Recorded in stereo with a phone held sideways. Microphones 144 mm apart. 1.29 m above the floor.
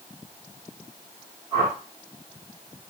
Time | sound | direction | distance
1.5 | a whoosh | 25° right (ahead or behind) | 2 m